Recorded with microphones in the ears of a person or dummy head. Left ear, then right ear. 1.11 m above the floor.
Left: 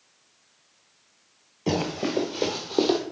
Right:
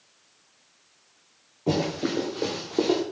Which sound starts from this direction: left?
Running footsteps, at 1.7 s.